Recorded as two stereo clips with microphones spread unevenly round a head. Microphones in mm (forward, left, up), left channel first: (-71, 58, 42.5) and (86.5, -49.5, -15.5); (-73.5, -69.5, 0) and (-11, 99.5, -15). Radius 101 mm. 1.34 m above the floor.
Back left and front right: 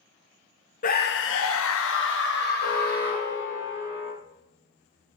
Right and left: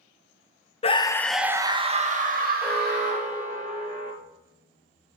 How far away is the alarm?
About 4.5 m.